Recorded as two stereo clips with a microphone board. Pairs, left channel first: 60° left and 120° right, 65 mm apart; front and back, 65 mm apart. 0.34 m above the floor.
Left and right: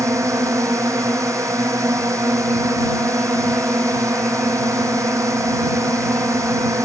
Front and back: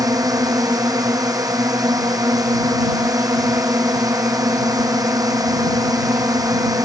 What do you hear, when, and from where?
0.0 s a drone: 160° right